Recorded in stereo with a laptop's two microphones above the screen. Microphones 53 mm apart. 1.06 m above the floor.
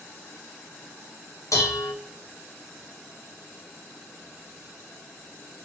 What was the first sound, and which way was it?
Dishes clattering, 75° left (ahead or behind).